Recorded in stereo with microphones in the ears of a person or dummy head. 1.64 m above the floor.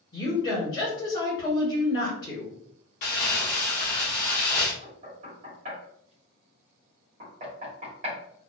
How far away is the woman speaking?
About 1.3 m.